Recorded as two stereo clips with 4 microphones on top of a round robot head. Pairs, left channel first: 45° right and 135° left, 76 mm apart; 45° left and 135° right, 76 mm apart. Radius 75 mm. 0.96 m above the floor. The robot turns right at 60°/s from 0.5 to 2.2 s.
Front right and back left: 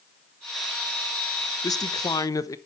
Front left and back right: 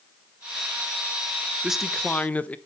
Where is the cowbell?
I don't hear a cowbell.